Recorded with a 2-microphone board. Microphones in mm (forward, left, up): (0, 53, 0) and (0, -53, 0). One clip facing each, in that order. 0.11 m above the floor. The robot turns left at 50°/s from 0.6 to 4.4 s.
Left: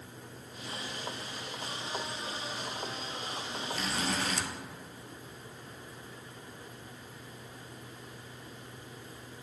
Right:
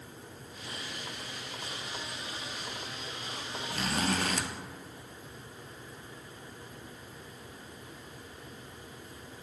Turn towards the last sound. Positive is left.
turn(degrees=-105)